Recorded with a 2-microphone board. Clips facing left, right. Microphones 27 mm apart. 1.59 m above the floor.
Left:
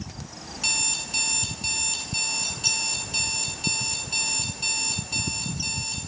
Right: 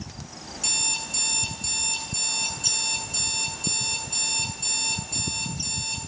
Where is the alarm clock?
25° left (ahead or behind), 9 m.